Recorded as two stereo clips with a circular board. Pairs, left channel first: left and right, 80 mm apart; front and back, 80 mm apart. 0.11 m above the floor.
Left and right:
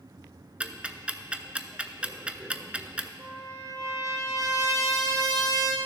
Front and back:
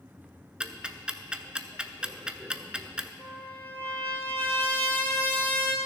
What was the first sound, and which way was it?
Ticking, 130° right.